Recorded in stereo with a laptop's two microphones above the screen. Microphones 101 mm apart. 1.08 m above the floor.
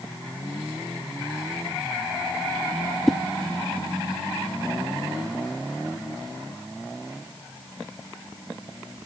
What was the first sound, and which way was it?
A whoosh, centre (ahead or behind).